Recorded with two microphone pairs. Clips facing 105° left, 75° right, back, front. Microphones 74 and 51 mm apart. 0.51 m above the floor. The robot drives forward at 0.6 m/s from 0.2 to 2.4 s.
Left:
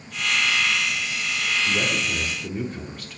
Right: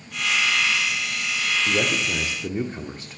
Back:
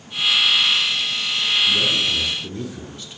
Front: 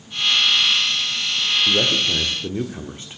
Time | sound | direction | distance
1.7 | a man speaking | 10° right | 1.2 m